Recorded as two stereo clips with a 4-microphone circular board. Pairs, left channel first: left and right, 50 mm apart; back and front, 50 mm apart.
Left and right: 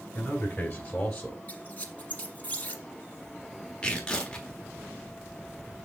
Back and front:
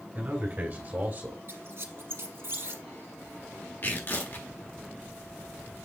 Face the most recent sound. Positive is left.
turn(degrees=155)